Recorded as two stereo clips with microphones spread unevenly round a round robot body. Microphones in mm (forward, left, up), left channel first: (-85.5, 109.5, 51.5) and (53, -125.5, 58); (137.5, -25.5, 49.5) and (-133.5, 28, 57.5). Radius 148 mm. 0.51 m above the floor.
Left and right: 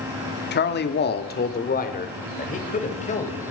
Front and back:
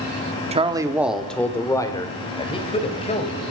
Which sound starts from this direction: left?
A man speaking, at 0.5 s.